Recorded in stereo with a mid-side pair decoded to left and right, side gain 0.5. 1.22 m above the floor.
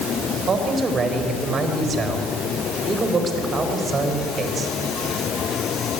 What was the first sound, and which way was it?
A man speaking, 40° right.